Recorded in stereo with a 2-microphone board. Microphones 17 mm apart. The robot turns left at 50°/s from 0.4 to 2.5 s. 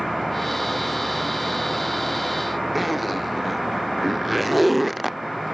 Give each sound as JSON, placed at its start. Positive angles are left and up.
{"t": 2.8, "sound": "a zipper", "side_deg": -5}